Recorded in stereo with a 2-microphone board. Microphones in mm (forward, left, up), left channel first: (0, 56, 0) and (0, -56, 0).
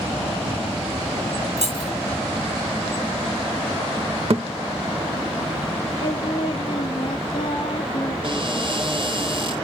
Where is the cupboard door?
45° right (ahead or behind), 6.5 m.